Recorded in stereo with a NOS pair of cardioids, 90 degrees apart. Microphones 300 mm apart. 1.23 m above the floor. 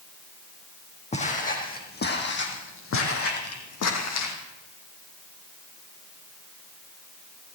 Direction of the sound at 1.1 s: 25° left.